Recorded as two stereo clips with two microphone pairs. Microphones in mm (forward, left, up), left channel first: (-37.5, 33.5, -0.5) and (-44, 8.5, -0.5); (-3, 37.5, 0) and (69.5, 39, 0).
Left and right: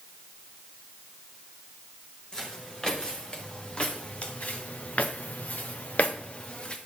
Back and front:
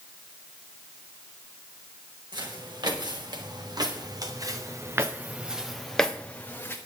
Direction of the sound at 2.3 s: 10° left.